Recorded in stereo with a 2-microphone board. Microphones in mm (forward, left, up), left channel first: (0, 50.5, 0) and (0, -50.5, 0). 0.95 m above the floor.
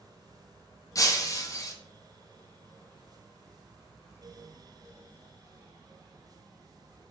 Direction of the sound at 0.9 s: 35° left (ahead or behind).